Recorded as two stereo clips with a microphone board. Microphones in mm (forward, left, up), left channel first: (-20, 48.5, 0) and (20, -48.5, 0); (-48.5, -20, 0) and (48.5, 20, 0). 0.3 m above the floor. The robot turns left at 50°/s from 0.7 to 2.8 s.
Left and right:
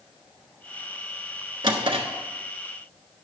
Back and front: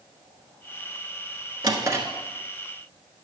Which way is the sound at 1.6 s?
25° right.